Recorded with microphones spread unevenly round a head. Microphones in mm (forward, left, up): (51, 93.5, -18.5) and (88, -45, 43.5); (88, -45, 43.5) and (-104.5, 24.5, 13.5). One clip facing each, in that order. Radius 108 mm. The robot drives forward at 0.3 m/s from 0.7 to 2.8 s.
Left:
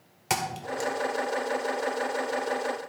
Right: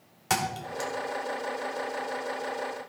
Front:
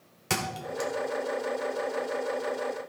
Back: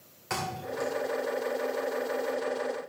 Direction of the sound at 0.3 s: 15° left.